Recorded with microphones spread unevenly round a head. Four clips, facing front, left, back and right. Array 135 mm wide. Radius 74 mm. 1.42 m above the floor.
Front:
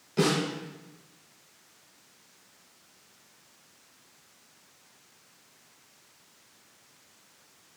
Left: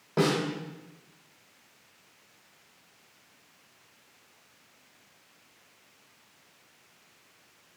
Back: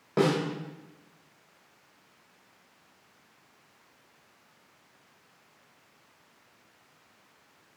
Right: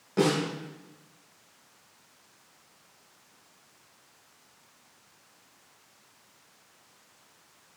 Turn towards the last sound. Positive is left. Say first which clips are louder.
# right 1 dB, back 1 dB
turn(degrees=175)